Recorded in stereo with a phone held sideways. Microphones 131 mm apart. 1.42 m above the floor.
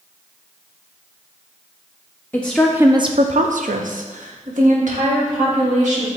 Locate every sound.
2.3 s a woman speaking: 15° left (ahead or behind), 0.7 m; by 6.1 s 65° right (ahead or behind), 2.5 m